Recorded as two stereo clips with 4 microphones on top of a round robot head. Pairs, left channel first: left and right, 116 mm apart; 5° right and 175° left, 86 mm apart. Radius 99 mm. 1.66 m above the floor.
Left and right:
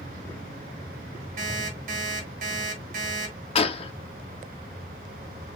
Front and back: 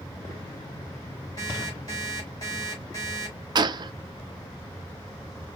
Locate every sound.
1.4 s an alarm clock: 70° right, 1.5 m
3.5 s a gunshot: 135° left, 0.5 m